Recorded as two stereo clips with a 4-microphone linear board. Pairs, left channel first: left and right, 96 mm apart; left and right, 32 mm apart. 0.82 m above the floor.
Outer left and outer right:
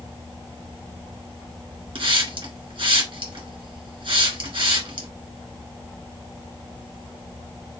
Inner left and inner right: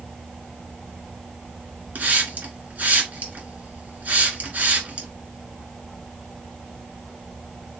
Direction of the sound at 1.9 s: 65° right (ahead or behind).